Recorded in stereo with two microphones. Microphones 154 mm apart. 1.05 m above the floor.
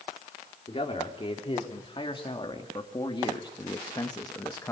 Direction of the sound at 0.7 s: 35° left (ahead or behind).